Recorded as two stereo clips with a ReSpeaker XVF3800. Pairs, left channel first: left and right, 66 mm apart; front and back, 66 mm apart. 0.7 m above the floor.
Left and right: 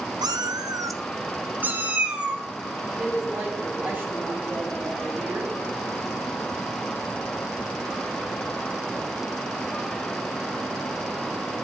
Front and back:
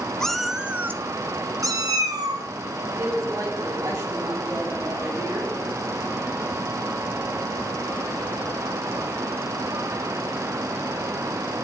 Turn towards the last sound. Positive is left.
turn(degrees=-155)